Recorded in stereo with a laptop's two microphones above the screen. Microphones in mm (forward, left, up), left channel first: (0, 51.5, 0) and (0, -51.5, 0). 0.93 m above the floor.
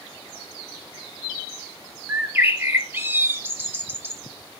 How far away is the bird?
About 0.9 m.